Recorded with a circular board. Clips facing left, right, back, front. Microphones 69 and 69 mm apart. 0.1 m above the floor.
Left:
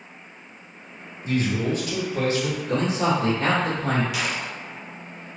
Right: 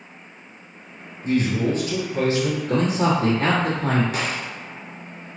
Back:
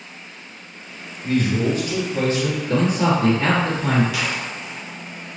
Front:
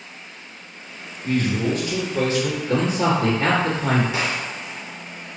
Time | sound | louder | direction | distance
1.2 | a man speaking | right 3 dB, back 2 dB | 105° right | 2.0 m
2.7 | a man speaking | right 1 dB, back 1 dB | 80° right | 1.6 m
4.1 | a gunshot | right 1 dB, front 1 dB | 50° right | 0.5 m